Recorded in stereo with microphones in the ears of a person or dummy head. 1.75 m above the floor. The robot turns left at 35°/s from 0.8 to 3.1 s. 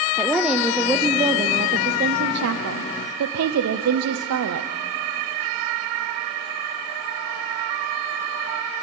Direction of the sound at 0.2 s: 5° right.